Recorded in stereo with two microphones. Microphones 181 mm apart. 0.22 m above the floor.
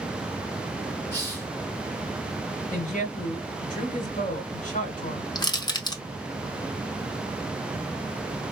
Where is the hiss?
10° left (ahead or behind), 2 m.